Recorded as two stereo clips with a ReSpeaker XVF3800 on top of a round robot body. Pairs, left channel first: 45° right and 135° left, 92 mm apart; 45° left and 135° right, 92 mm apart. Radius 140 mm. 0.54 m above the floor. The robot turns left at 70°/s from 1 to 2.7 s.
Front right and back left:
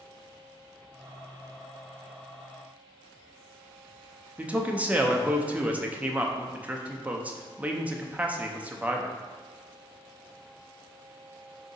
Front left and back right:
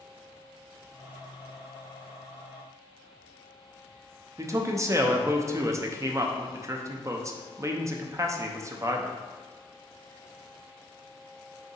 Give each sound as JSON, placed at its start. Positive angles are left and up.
{"t": 4.4, "sound": "a man speaking", "azimuth_deg": -160, "distance_m": 0.7}